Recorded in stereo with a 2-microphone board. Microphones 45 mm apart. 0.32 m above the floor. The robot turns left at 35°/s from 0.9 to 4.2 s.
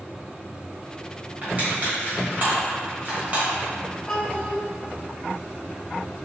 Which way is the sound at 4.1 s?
20° left (ahead or behind).